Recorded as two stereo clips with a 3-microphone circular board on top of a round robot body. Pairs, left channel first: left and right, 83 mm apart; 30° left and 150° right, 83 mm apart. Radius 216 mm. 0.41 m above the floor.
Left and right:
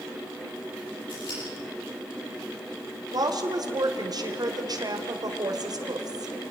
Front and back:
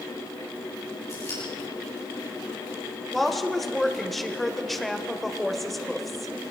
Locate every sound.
1.1 s scissors: 80° left, 8 m
3.1 s a woman speaking: 60° right, 2.5 m